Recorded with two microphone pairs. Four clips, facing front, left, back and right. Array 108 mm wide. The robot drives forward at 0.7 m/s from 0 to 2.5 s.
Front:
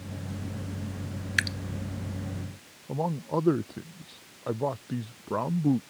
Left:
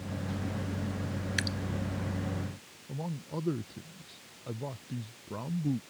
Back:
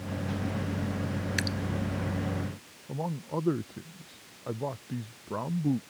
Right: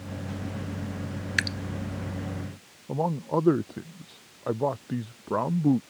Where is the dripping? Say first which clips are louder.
Right 8 dB, front 7 dB; 50° right.